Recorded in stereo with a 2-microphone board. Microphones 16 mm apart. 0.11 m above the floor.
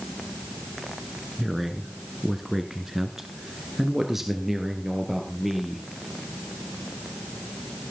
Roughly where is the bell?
I don't hear a bell.